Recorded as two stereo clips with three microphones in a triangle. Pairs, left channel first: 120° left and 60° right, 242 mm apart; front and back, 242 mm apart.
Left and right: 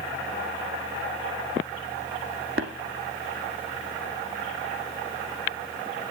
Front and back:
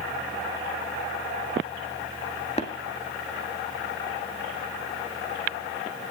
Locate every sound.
2.6 s tapping: 55° right, 1.5 m